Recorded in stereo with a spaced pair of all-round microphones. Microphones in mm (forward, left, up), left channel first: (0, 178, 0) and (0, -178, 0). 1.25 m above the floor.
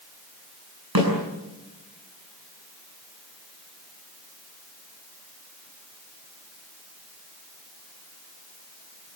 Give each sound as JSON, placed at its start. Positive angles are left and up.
{"t": 0.9, "sound": "a snare drum", "side_deg": -75, "distance_m": 8.5}